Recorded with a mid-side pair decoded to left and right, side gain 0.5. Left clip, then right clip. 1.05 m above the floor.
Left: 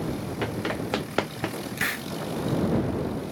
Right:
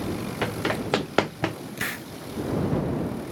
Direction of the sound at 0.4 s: 30° right.